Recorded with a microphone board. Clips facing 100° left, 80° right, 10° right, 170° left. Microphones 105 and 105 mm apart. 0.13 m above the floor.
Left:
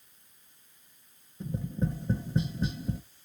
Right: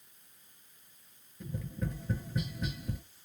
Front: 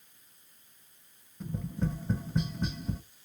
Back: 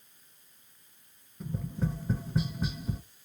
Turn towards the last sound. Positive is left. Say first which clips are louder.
# left 6 dB, even
turn(degrees=85)